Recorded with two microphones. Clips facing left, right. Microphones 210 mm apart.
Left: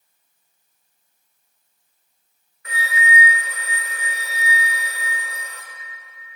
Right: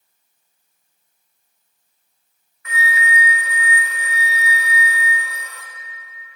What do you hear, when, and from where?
2.6 s a flute: 35° left (ahead or behind), 0.7 m